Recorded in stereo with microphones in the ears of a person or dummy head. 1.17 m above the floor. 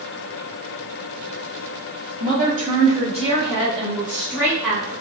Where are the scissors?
No scissors in this recording.